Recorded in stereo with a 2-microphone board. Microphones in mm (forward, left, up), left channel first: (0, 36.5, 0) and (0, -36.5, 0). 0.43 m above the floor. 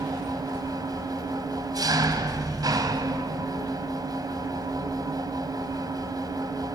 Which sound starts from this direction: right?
An engine running, at 0.0 s.